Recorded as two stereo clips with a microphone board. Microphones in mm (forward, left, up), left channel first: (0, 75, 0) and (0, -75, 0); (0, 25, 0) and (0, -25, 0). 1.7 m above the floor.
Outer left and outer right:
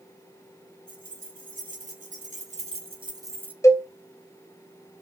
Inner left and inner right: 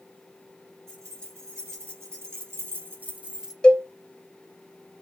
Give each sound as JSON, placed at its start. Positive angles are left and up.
{"t": 0.9, "sound": "keys jangling", "side_deg": -65, "distance_m": 2.5}
{"t": 3.6, "sound": "a cowbell", "side_deg": 20, "distance_m": 0.7}